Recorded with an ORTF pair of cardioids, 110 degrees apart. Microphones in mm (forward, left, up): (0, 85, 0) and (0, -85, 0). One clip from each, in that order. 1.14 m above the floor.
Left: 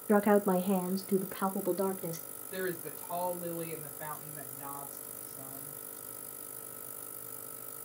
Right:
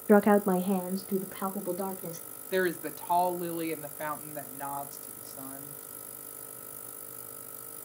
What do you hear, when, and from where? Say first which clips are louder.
0.1 s a woman speaking: right 4 dB; 25° right, 0.5 m; by 2.2 s 20° left, 1.8 m
2.5 s a woman speaking: right 8 dB; 60° right, 2.5 m